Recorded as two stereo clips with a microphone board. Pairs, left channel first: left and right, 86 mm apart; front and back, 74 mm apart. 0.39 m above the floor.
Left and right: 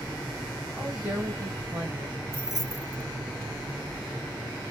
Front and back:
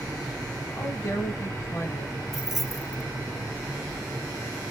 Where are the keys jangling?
95° left, 0.6 m.